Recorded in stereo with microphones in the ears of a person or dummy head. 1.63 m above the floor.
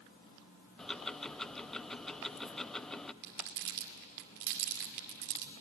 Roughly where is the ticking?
Centre.